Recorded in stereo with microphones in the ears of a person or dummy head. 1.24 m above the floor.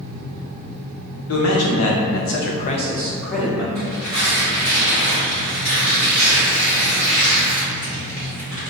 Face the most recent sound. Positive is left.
turn(degrees=65)  # may be behind; listen again after turning